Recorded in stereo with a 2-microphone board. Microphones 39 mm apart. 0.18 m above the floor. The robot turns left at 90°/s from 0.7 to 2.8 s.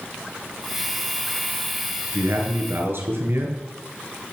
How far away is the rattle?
I don't hear a rattle.